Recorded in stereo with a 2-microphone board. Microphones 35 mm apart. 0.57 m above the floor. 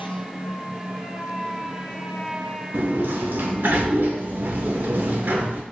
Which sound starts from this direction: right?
A sliding door, at 2.7 s.